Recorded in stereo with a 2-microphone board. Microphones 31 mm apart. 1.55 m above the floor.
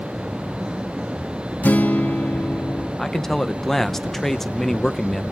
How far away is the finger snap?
I don't hear a finger snap.